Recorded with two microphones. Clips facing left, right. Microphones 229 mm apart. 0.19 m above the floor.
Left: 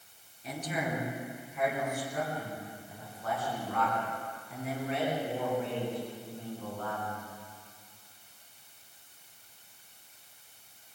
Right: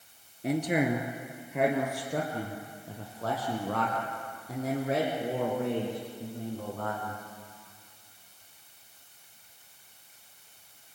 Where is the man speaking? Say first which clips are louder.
Right 9 dB; 65° right (ahead or behind), 3 m; by 7.2 s 85° right, 10 m.